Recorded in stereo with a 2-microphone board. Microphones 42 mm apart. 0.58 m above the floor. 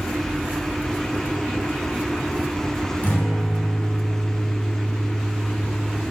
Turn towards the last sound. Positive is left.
turn(degrees=45)  # may be behind; listen again after turning